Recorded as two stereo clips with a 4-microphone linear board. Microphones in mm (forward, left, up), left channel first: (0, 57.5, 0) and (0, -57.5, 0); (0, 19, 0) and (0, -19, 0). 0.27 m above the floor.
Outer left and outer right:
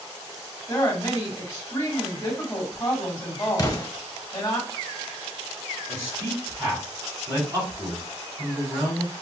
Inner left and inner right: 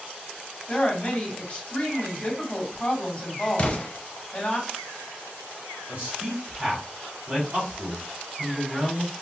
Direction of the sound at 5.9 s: 35° right (ahead or behind).